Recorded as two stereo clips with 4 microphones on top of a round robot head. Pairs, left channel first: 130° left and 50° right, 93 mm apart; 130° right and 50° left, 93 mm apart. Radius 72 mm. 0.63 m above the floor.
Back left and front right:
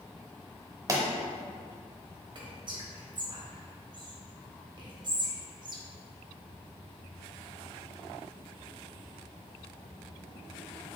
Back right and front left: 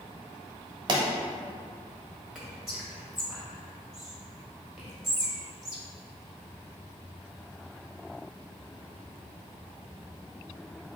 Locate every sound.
0.9 s a pop: 5° left, 0.8 m
2.4 s whispering: 35° right, 1.3 m